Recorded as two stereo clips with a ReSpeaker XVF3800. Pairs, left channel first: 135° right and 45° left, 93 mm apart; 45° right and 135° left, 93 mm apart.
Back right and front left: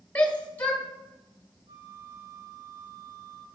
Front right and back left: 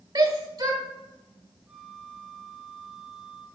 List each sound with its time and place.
0.1 s a shout: 155° left, 1.7 m
1.7 s a flute: 55° left, 0.9 m